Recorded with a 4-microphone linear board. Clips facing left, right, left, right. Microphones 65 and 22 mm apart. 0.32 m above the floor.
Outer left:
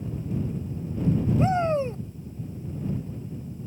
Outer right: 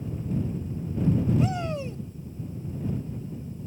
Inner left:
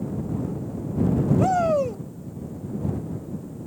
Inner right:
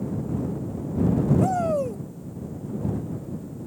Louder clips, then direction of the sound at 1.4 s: Outer left 5 dB, inner left 2 dB; 35° left (ahead or behind).